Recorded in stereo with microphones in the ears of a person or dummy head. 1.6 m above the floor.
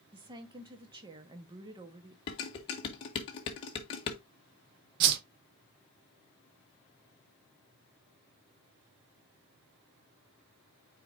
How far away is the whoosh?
About 0.7 m.